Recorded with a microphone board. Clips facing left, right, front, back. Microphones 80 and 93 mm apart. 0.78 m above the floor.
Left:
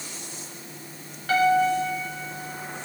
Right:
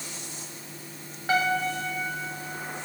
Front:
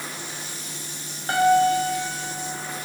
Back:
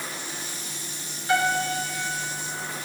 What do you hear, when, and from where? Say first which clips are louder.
1.3 s a piano: left 5 dB, front 6 dB; 25° right, 1.5 m